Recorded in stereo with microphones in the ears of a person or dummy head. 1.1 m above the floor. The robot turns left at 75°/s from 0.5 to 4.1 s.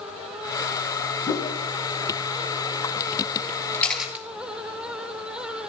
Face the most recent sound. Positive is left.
turn(degrees=-5)  # may be behind; listen again after turning